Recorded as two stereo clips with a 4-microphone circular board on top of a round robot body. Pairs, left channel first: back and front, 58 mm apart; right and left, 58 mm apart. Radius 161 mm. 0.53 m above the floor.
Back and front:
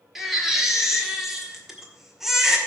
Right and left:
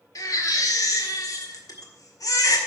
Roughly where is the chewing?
No chewing in this recording.